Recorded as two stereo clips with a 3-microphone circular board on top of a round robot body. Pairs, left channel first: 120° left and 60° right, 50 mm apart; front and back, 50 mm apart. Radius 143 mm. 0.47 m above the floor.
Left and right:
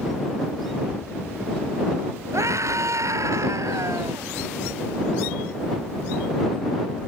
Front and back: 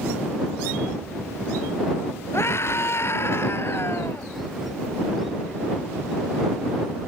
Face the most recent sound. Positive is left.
turn(degrees=-45)